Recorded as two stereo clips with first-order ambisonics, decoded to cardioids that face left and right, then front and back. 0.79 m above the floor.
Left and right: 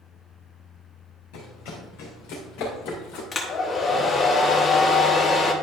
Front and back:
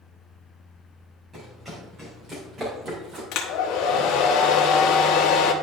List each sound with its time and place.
1.3 s running footsteps: 100° left, 2.5 m; by 3.2 s 120° left, 3 m
3.3 s a hair dryer: 25° left, 1.0 m